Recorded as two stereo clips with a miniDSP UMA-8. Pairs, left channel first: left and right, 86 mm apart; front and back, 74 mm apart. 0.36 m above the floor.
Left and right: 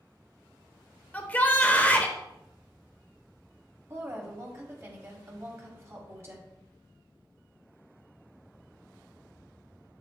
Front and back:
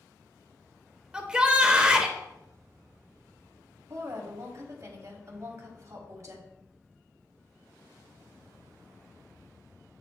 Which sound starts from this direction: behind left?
A shout, at 1.1 s.